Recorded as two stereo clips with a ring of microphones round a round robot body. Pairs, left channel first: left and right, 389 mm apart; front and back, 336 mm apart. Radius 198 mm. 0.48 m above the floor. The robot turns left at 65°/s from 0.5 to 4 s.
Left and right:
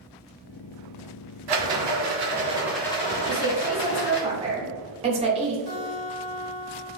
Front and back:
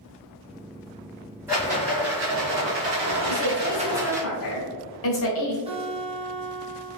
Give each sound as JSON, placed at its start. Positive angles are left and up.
{"t": 1.5, "sound": "a rattle", "azimuth_deg": -95, "distance_m": 1.1}
{"t": 3.2, "sound": "a woman speaking", "azimuth_deg": 30, "distance_m": 1.4}
{"t": 5.7, "sound": "a guitar", "azimuth_deg": 110, "distance_m": 1.7}